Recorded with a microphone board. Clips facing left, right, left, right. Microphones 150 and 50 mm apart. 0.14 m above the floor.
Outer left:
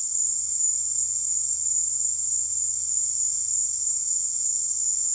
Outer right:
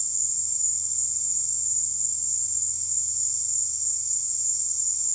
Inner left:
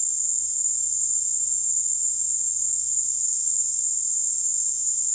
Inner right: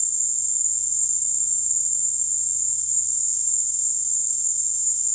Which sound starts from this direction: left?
An insect, at 0.0 s.